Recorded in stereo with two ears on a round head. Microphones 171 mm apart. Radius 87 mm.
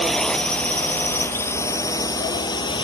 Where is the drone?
5° left (ahead or behind); by 2.8 s 25° left (ahead or behind).